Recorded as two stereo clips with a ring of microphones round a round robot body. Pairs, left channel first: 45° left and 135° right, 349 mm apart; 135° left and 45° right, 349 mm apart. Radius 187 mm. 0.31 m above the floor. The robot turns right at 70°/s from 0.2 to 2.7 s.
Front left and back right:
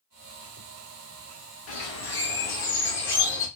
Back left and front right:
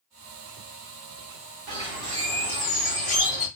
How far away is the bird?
About 2.0 m.